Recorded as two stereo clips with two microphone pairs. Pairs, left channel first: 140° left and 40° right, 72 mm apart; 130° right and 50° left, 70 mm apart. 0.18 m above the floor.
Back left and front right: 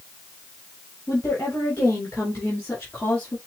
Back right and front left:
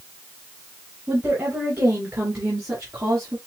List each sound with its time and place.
1.1 s a woman speaking: 105° left, 2.5 m; by 3.4 s 75° left, 3 m